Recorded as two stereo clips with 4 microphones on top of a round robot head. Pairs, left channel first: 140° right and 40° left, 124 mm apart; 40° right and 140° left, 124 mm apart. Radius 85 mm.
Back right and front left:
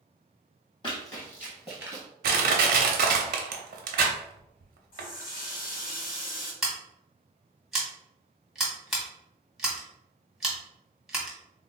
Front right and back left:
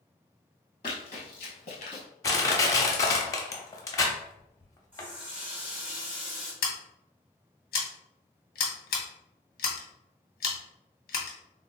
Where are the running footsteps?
90° right, 1.2 m; by 2.0 s 15° right, 0.8 m.